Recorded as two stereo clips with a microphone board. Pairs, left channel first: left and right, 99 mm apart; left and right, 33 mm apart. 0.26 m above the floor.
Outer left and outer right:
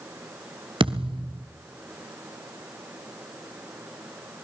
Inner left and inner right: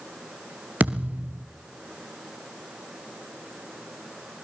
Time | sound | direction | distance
0.8 | a thud | 65° right (ahead or behind) | 2.5 m